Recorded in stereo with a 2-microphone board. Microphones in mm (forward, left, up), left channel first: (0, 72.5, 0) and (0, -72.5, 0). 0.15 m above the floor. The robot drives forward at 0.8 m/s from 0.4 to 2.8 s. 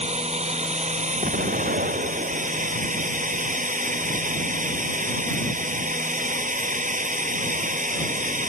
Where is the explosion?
80° right; by 2.8 s 85° right.